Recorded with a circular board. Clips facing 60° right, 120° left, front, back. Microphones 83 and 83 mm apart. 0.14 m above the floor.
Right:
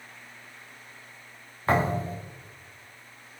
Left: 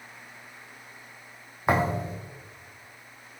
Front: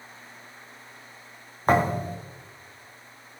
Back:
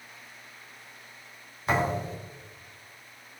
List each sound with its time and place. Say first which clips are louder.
1.7 s a thud: even, front 5 dB; 45° left, 2.5 m